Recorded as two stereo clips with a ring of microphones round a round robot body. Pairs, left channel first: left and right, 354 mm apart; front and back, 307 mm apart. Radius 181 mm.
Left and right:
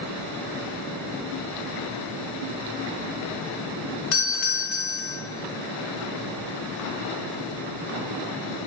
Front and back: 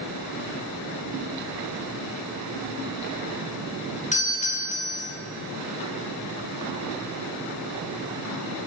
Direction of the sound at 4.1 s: 65° left.